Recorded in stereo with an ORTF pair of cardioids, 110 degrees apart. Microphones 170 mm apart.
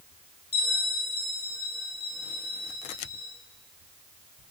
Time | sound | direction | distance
0.5 | a bell | 35° left | 5.5 m